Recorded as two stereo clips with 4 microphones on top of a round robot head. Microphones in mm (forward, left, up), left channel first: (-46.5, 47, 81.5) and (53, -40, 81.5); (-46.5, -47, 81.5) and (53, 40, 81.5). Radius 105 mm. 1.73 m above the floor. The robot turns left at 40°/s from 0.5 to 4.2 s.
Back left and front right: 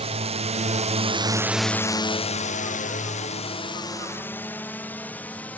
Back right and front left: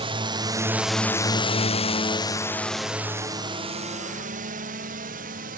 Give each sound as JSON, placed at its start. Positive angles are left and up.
{"t": 0.0, "sound": "a drone", "azimuth_deg": -5}